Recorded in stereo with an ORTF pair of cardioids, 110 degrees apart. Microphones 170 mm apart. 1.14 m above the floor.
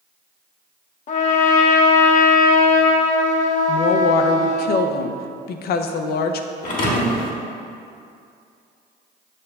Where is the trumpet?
45° left, 0.7 m.